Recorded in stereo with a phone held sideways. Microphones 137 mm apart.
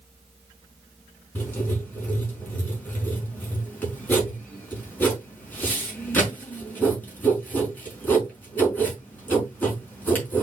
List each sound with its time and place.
1.4 s writing: 15° left (ahead or behind), 5 m